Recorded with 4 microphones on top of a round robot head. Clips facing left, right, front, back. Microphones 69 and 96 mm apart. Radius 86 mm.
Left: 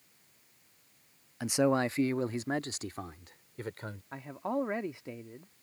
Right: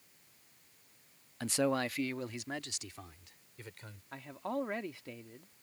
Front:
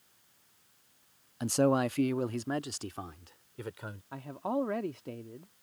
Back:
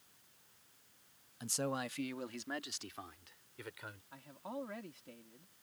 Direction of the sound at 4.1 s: 25° left.